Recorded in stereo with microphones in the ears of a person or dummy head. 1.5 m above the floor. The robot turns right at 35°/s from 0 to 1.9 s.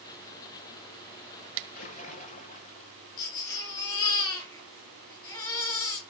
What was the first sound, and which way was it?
A splash, 45° left (ahead or behind).